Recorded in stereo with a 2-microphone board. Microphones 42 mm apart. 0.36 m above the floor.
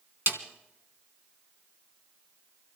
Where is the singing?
No singing in this recording.